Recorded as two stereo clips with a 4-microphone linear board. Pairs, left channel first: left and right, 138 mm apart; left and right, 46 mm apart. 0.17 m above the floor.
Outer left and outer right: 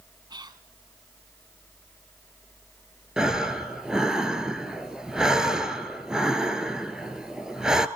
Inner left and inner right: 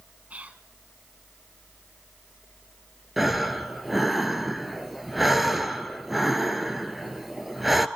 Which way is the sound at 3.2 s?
5° right (ahead or behind).